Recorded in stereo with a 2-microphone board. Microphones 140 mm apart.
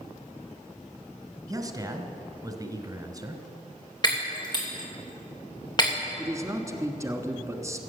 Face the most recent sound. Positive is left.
turn(degrees=-25)  # may be behind; listen again after turning